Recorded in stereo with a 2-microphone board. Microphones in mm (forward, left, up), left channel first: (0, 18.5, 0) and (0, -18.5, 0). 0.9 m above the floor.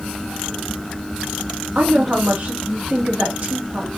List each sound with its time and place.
1.8 s a woman speaking: 45° right (ahead or behind), 1.5 m